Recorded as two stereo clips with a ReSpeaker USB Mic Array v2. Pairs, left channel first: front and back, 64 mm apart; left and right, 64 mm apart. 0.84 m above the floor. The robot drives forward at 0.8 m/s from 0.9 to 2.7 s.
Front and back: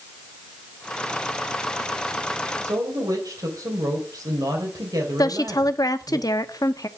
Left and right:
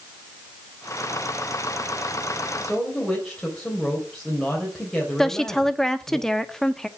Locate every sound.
2.6 s a woman speaking: 175° left, 3 m
5.2 s a woman speaking: 10° left, 1.1 m